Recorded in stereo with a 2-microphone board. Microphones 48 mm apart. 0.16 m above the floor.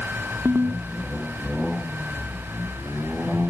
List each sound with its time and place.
0.5 s a ringtone: 85° right